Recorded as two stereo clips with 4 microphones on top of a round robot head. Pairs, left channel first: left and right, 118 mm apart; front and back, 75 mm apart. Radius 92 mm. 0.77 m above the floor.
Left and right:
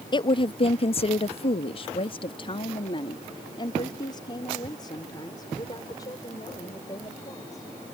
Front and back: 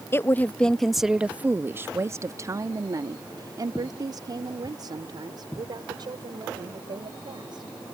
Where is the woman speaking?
50° left; by 7.7 s 155° left.